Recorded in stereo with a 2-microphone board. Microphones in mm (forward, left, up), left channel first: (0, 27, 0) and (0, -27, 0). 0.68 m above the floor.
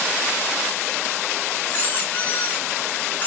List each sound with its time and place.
1.7 s a squeak: 30° left (ahead or behind), 0.7 m